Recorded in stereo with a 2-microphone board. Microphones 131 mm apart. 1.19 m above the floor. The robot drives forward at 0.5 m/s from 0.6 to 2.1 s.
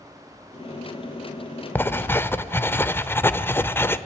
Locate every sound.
1.8 s writing: 15° left (ahead or behind), 0.9 m